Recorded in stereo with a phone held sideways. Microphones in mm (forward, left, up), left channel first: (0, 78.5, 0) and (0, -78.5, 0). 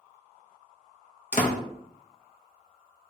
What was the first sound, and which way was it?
A door slam, 50° left (ahead or behind).